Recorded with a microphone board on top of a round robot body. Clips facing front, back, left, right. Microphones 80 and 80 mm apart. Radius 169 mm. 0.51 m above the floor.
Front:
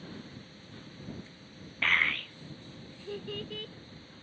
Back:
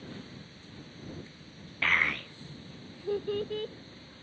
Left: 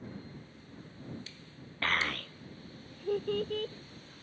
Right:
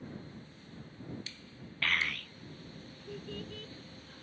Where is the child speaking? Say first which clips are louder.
Back 1 dB, left 2 dB; 100° left; by 3.7 s 125° left.